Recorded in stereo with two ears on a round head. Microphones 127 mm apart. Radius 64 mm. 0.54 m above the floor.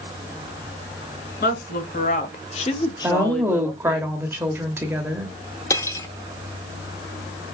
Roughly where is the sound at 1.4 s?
Left.